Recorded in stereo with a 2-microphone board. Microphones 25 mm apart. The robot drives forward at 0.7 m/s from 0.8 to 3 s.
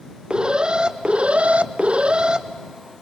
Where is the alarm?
40° right (ahead or behind), 0.8 m.